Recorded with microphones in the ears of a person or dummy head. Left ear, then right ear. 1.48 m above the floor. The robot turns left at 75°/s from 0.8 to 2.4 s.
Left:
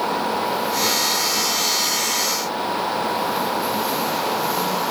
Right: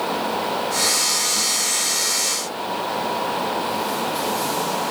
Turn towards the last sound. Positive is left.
No sound to turn to.